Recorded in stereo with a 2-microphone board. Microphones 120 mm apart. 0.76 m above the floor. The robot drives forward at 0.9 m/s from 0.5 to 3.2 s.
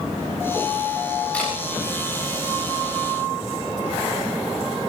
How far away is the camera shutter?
About 8 m.